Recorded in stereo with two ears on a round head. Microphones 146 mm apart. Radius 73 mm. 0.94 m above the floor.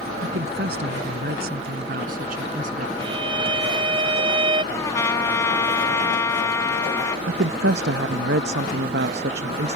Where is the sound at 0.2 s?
75° right (ahead or behind); by 2.9 s 55° right (ahead or behind).